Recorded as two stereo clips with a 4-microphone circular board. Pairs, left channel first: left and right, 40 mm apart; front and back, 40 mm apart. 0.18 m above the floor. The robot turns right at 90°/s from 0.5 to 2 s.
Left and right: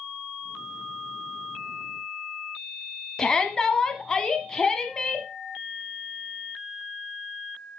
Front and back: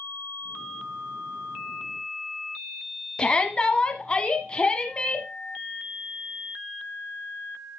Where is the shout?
35° left, 1.1 m.